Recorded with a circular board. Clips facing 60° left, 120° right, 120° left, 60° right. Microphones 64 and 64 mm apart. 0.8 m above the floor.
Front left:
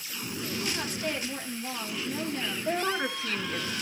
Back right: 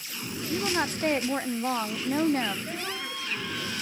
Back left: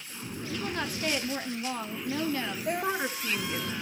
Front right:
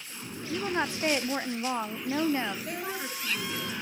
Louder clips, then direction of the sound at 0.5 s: Back right 7 dB, front right 4 dB; 115° right.